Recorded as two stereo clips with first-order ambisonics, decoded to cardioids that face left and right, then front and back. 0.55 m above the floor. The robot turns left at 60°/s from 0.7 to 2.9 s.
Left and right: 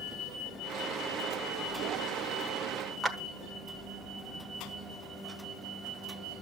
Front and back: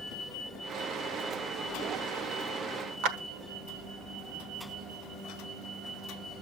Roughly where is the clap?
Behind.